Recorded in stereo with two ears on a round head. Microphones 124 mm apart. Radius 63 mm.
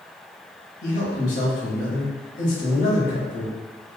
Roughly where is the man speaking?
Left.